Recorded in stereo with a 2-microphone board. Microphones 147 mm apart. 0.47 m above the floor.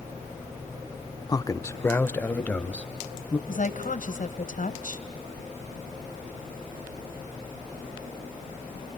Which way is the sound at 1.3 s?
30° left (ahead or behind).